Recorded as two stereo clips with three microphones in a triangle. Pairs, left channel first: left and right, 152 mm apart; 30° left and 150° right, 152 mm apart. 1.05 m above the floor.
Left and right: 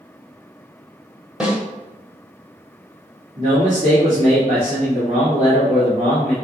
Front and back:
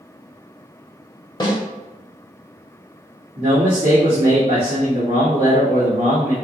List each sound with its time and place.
1.4 s a snare drum: 10° right, 1.0 m
3.4 s a man speaking: 130° right, 2 m